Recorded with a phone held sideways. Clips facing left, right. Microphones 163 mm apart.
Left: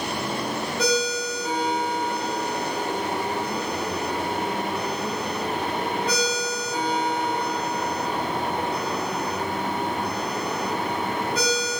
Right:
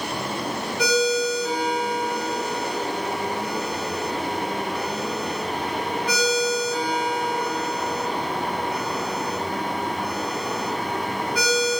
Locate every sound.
0.8 s a ringtone: 25° left (ahead or behind), 0.7 m